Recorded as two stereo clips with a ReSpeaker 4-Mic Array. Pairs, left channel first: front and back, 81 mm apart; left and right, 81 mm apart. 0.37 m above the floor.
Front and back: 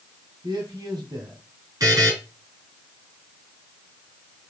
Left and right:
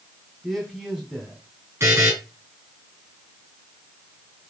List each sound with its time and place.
0.4 s a man speaking: 170° right, 1.8 m
1.8 s a buzzer: 145° right, 4 m